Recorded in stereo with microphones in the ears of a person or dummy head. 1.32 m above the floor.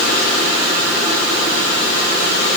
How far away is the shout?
I don't hear a shout.